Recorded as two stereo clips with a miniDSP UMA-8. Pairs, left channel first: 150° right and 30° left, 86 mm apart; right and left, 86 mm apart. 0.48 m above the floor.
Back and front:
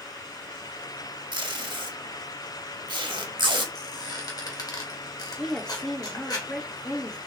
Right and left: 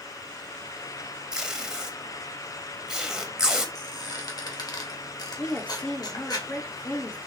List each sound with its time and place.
1.3 s tape being pulled: 10° left, 1.0 m
3.8 s a squeak: 120° right, 1.5 m
5.4 s a woman speaking: 95° right, 0.8 m